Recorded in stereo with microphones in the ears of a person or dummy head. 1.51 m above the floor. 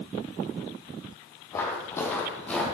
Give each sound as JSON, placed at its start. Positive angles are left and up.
{"t": 1.5, "sound": "footsteps", "side_deg": 20, "distance_m": 3.0}